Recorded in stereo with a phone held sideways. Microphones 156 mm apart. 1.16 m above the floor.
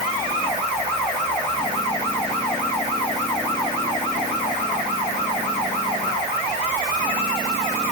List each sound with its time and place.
Only background noise.